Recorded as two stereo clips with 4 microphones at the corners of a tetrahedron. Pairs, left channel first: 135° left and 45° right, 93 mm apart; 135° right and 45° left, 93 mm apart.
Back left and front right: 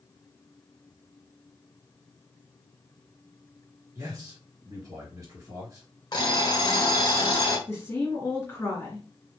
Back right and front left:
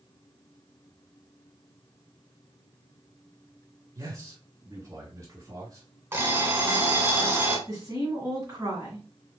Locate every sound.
4.0 s a man speaking: straight ahead, 2.5 m
6.1 s an alarm clock: 105° left, 1.2 m
7.7 s a woman speaking: 80° left, 2 m